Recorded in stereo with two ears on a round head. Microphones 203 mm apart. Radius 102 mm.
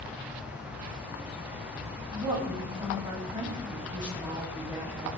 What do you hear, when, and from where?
2.1 s a woman speaking: 20° right (ahead or behind), 3.5 m